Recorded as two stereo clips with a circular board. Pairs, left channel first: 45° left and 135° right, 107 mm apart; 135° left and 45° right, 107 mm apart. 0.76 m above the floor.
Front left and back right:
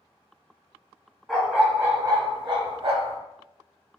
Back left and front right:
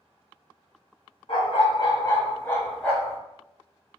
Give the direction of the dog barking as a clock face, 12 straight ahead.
7 o'clock.